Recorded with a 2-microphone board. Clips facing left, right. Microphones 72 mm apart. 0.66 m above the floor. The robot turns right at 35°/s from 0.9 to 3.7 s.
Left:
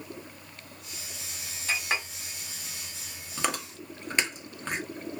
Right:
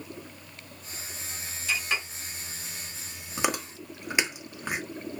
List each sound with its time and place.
1.7 s a clink: 50° left (ahead or behind), 1.3 m; by 2.1 s 35° left (ahead or behind), 1.3 m
3.4 s chewing: 15° right (ahead or behind), 0.9 m; by 4.8 s 10° right (ahead or behind), 0.9 m